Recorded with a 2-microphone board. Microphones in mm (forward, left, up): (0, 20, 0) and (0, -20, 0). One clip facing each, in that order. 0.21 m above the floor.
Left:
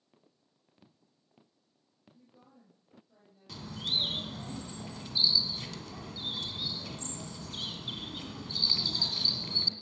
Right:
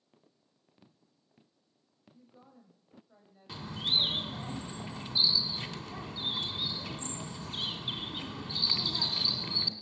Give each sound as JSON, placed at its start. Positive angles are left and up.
{"t": 2.1, "sound": "a woman speaking", "side_deg": -30, "distance_m": 7.5}
{"t": 3.5, "sound": "a bird", "side_deg": -25, "distance_m": 2.0}